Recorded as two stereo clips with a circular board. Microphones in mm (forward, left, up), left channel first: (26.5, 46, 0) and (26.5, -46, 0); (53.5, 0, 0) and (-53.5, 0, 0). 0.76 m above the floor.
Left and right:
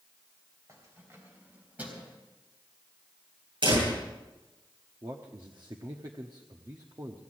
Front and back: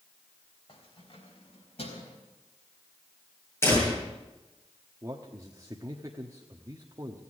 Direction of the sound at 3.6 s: 65° right.